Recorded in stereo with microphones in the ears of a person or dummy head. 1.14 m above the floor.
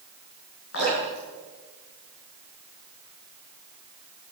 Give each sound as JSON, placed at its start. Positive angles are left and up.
{"t": 0.7, "sound": "dripping", "side_deg": 70, "distance_m": 7.5}